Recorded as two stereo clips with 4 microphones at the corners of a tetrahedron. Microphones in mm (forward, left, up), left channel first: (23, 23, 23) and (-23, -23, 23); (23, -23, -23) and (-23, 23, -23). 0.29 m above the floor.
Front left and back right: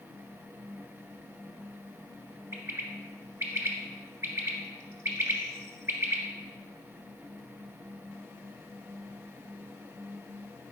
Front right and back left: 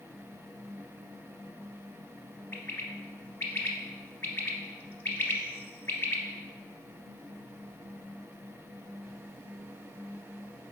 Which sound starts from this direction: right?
A bird, at 2.5 s.